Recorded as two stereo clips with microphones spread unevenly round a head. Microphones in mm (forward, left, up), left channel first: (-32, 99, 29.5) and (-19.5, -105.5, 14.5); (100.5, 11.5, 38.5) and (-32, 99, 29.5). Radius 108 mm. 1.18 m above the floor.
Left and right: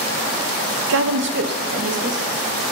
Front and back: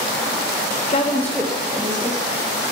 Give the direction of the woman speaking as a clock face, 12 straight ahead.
3 o'clock.